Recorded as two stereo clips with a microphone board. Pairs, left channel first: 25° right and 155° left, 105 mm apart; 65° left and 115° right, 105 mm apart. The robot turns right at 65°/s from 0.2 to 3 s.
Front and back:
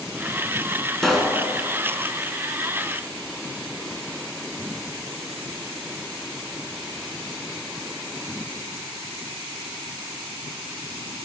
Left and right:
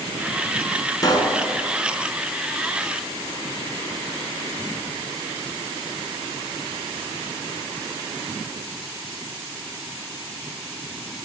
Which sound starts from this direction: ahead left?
A pop, at 1.0 s.